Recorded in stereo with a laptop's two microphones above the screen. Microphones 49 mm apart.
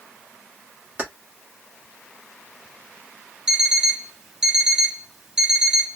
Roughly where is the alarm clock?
Centre.